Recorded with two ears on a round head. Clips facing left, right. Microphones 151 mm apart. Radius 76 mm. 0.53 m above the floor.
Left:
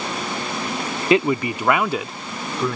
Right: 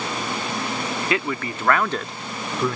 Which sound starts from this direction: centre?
A man speaking, at 1.1 s.